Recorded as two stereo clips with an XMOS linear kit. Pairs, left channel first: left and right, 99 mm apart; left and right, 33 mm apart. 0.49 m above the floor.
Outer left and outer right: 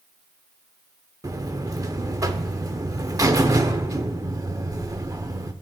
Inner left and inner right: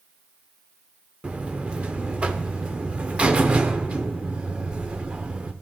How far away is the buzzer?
About 0.6 m.